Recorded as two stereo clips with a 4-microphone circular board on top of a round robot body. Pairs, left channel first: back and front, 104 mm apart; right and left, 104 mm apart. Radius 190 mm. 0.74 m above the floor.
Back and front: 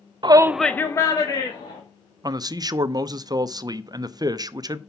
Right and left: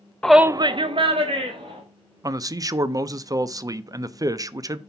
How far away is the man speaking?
About 0.6 m.